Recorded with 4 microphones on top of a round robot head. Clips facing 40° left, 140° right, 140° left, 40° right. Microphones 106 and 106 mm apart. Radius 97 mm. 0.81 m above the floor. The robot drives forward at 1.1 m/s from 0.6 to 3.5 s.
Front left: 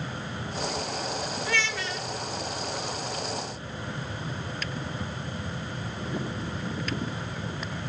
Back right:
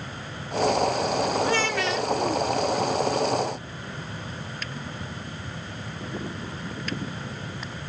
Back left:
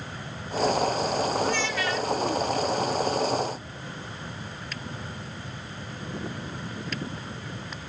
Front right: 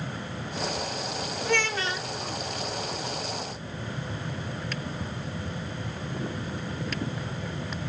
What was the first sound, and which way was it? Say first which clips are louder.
A child speaking: back right 6 dB, back left 1 dB; 70° right.